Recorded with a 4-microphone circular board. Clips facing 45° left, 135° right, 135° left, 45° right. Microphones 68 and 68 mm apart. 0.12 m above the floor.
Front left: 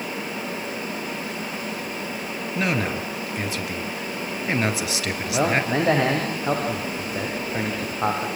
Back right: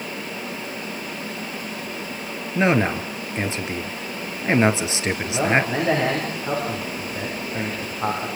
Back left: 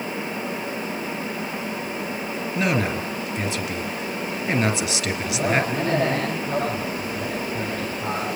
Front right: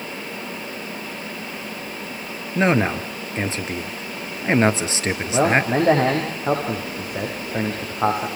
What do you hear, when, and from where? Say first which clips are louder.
2.5 s a man speaking: back right 6 dB, front right 5 dB; 85° right, 2.5 m
5.3 s a man speaking: even, front right 5 dB; 20° right, 7.5 m